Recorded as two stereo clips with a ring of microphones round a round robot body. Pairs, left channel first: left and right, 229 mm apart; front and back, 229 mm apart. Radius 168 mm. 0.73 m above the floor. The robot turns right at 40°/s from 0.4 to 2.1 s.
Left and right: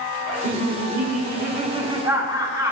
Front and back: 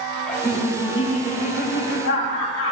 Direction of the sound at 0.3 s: 85° right.